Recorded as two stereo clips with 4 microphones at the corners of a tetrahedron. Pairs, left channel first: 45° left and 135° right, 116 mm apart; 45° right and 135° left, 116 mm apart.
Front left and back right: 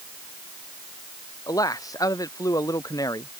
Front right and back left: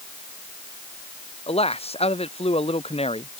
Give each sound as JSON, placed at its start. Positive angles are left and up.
{"t": 1.5, "sound": "a man speaking", "azimuth_deg": -15}